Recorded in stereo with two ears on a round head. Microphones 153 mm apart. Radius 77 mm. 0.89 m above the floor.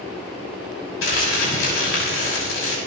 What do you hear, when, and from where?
1.0 s crumpling: 85° left, 6 m